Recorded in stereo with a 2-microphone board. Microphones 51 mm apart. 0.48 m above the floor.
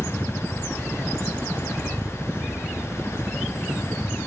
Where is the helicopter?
15° right (ahead or behind).